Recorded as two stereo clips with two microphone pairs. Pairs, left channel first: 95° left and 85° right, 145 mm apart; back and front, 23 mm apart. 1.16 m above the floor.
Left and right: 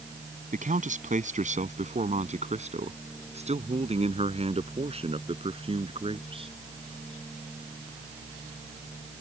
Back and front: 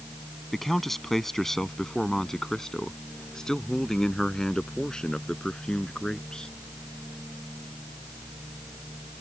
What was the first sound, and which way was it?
A man speaking, 105° right.